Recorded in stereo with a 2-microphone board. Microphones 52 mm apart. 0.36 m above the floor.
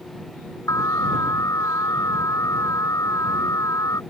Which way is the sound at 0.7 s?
85° left.